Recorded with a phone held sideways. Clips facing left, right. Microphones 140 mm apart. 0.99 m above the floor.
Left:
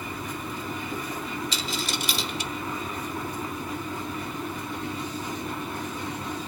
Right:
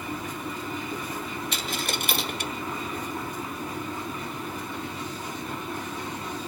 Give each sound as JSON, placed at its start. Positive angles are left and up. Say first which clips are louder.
{"t": 1.5, "sound": "a dropped coin", "louder": "even", "side_deg": -60, "distance_m": 1.1}